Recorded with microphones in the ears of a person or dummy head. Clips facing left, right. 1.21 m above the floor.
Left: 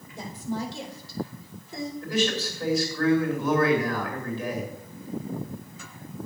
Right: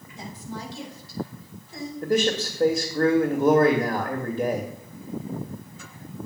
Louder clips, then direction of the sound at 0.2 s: Left 5 dB; 40° left (ahead or behind).